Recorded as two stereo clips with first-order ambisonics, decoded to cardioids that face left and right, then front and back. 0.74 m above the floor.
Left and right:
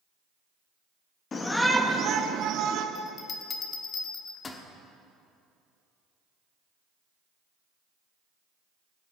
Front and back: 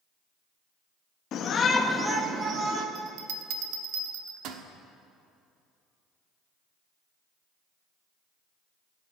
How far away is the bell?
About 1.2 m.